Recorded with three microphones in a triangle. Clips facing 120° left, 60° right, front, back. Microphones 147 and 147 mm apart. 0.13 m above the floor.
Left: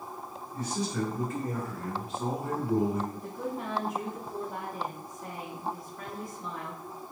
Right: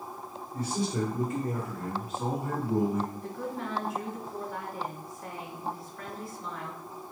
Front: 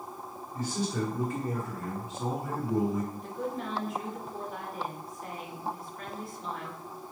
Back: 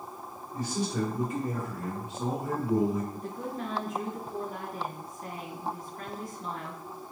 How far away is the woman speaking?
About 1.6 m.